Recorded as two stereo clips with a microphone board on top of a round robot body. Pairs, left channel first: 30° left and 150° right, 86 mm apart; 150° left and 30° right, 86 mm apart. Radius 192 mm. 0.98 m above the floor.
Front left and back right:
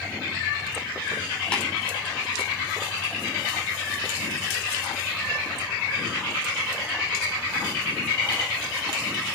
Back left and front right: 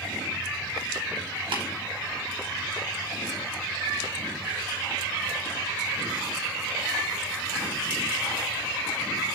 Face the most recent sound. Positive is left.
turn(degrees=-50)